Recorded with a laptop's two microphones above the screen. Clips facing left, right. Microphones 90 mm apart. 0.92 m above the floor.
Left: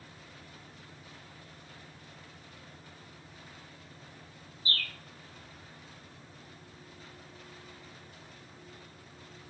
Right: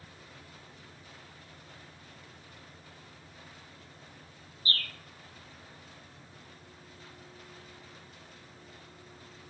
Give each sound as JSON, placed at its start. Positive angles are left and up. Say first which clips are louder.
{"t": 4.7, "sound": "a bird", "louder": "right 1 dB", "side_deg": -50, "distance_m": 1.0}